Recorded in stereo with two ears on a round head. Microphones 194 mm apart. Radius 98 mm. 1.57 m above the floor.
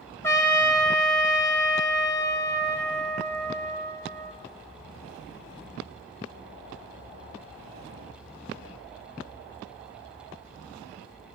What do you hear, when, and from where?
0.2 s a trumpet: 10° left (ahead or behind), 1.7 m